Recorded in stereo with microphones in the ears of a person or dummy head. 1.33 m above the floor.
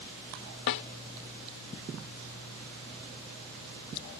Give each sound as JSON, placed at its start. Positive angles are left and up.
{"t": 0.7, "sound": "a snare drum", "side_deg": 65}